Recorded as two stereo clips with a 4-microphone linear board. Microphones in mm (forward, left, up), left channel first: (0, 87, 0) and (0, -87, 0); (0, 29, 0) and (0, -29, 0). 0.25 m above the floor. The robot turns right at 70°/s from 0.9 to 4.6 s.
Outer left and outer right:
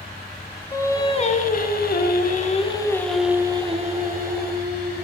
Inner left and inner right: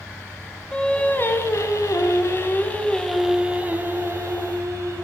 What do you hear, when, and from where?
0.7 s singing: 20° left, 0.6 m; by 5.1 s 80° right, 0.6 m